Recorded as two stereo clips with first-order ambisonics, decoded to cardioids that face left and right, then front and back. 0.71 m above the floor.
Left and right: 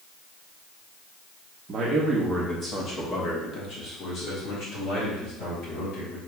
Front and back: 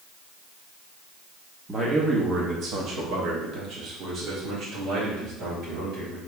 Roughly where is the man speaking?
Behind right.